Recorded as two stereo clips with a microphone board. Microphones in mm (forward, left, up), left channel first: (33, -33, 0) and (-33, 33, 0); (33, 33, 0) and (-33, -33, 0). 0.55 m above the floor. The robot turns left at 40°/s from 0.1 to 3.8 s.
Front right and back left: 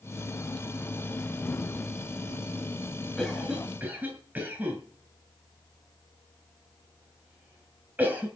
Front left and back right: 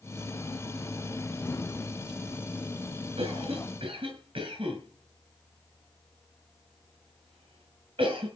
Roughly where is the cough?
Behind right.